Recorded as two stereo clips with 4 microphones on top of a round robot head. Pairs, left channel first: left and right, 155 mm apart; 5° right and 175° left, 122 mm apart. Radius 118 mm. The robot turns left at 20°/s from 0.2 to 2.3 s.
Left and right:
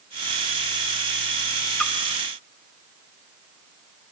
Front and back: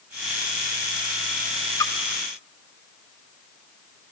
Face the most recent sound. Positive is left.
turn(degrees=5)